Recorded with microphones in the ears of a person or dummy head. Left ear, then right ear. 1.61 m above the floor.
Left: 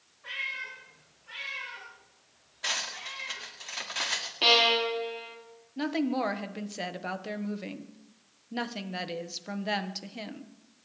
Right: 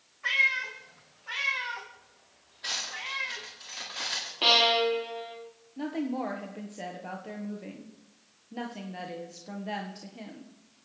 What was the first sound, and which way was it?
A cat meowing, 65° right (ahead or behind).